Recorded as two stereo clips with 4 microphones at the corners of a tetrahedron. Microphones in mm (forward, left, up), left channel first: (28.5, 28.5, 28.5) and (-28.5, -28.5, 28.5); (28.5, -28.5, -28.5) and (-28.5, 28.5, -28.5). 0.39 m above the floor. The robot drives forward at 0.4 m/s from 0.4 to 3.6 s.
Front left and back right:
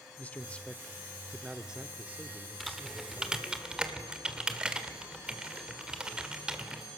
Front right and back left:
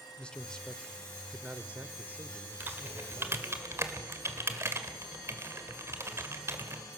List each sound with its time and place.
0.2 s a man speaking: 10° left, 0.8 m; by 3.4 s 175° left, 1.2 m
2.6 s typing on a keyboard: 135° left, 1.4 m; by 6.8 s 155° left, 1.6 m